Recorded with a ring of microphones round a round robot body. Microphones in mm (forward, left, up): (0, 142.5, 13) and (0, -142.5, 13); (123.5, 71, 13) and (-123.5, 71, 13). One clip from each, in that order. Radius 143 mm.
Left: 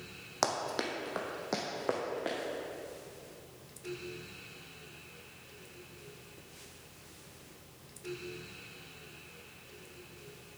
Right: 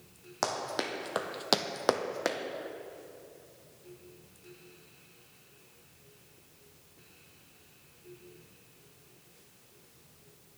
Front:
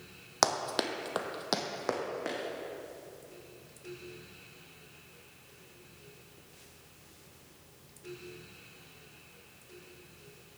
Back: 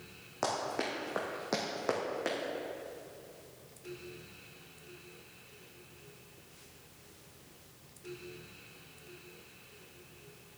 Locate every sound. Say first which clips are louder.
0.4 s running footsteps: even, front 5 dB; 10° left, 1.3 m; by 2.4 s 100° right, 1.5 m